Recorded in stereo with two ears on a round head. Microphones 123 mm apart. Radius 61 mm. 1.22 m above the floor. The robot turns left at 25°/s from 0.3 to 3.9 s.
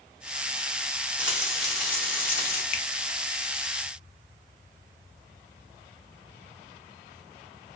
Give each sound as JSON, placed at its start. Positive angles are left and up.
{"t": 1.2, "sound": "frying", "azimuth_deg": -170, "distance_m": 2.0}
{"t": 2.7, "sound": "a finger snap", "side_deg": 55, "distance_m": 0.7}